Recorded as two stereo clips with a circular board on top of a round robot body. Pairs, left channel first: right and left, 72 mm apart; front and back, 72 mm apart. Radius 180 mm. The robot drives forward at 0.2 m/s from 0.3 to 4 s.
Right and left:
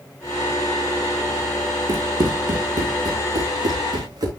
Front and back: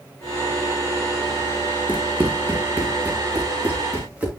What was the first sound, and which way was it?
Running footsteps, 110° left.